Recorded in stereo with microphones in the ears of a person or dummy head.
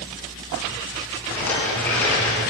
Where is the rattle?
5° left (ahead or behind), 9.5 m.